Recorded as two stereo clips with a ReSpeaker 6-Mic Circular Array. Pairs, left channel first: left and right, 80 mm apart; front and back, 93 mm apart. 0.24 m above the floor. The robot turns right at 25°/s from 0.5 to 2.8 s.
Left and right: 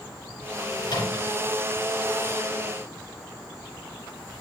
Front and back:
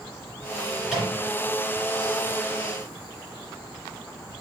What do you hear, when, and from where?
0.8 s a microwave: 95° left, 3 m; by 1.4 s 110° left, 3 m